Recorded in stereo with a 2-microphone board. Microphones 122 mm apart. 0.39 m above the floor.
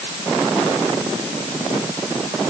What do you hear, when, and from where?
Only background noise.